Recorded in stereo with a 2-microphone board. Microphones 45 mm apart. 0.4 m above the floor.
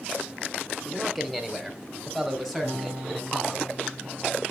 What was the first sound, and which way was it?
A man speaking, centre (ahead or behind).